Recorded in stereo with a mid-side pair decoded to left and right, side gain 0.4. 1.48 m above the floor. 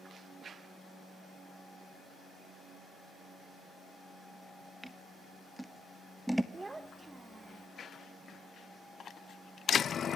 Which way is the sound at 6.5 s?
25° right.